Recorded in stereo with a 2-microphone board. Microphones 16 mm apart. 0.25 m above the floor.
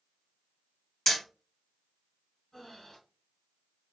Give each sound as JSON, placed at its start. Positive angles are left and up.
{"t": 1.1, "sound": "hammering", "side_deg": 30, "distance_m": 2.0}
{"t": 2.5, "sound": "breathing", "side_deg": 30, "distance_m": 1.3}